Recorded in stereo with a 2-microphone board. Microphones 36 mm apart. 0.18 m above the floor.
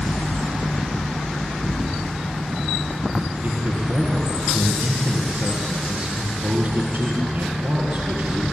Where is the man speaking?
70° right (ahead or behind), 4.5 m.